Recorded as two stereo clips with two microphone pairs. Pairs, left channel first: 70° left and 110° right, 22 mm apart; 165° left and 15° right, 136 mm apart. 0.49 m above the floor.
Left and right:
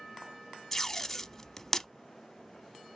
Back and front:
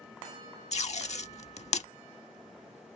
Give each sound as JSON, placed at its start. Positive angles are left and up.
{"t": 0.7, "sound": "tape being pulled", "azimuth_deg": 145, "distance_m": 0.5}